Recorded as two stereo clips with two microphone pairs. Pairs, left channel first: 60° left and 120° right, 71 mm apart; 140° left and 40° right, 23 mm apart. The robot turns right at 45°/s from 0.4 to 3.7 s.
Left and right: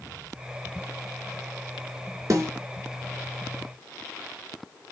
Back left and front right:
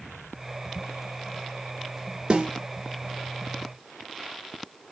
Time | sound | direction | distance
2.3 | a snare drum | 80° right | 4 m